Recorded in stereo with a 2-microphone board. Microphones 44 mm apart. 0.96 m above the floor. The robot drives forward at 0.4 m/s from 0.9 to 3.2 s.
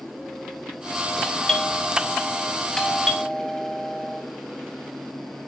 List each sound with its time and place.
1.2 s a doorbell: 20° left (ahead or behind), 1.8 m; by 4.2 s 15° left (ahead or behind), 2.5 m